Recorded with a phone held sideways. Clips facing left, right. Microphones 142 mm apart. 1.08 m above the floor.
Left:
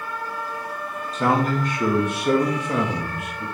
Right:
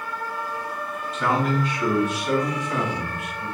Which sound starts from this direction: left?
A man speaking, at 1.1 s.